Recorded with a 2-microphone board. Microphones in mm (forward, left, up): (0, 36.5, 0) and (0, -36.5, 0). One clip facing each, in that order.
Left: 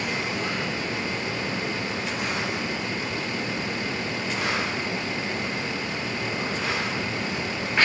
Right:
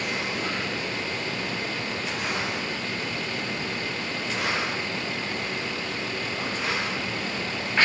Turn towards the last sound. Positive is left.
No sound to turn to.